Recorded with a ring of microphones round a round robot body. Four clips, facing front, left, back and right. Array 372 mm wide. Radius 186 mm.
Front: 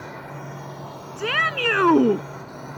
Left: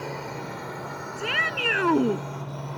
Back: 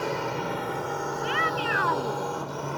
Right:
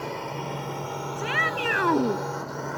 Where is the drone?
Straight behind; by 2.8 s 135° right.